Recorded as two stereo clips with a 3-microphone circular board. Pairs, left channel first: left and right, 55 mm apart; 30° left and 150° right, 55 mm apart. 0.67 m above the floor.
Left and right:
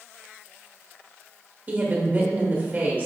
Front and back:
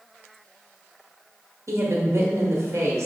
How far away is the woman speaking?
About 1.1 m.